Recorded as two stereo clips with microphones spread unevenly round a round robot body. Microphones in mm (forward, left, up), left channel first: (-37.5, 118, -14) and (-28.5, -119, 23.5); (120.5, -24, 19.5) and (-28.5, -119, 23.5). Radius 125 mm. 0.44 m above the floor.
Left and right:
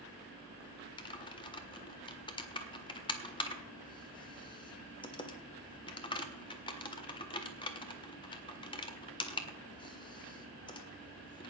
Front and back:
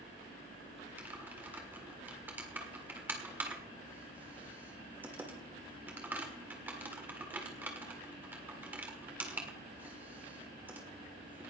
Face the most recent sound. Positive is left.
turn(degrees=135)